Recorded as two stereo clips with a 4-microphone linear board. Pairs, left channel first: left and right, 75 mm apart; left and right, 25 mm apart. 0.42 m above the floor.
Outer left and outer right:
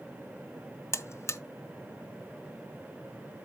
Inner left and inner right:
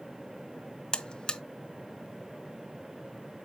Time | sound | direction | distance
0.9 | a buzzer | 40° left (ahead or behind) | 0.6 m